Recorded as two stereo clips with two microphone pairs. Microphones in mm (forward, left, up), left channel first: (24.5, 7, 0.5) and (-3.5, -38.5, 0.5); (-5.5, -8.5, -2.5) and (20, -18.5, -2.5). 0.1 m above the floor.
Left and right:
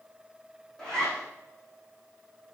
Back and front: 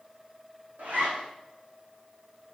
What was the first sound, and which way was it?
A zipper, 20° right.